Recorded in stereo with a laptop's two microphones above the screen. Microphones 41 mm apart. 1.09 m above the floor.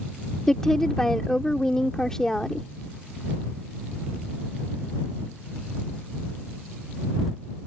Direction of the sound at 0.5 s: 10° left (ahead or behind).